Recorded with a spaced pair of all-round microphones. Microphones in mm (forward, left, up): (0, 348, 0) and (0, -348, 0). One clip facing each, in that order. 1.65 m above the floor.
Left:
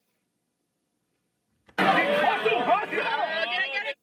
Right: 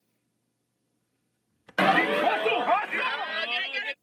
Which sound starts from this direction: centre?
A shout, at 1.8 s.